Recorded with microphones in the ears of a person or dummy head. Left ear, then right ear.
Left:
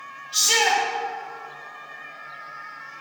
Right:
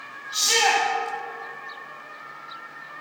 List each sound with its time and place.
0.3 s a shout: 5° right (ahead or behind), 2.5 m